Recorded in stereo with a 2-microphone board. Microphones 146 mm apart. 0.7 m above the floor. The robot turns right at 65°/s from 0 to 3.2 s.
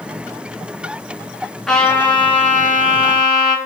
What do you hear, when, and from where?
1.7 s a trumpet: straight ahead, 2.5 m; by 3.5 s 100° left, 2.5 m